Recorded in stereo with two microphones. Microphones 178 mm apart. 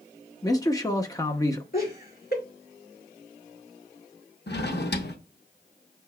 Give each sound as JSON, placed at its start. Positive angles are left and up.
{"t": 0.4, "sound": "a man speaking", "side_deg": 20, "distance_m": 0.6}
{"t": 1.7, "sound": "laughter", "side_deg": 65, "distance_m": 2.0}
{"t": 4.5, "sound": "a drawer", "side_deg": 70, "distance_m": 0.7}